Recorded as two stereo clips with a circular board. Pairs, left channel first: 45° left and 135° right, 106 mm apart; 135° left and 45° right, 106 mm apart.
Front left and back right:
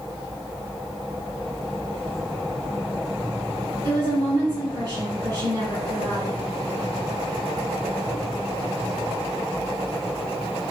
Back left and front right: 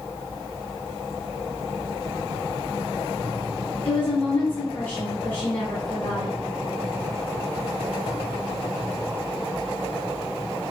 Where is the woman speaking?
160° right, 1.3 m.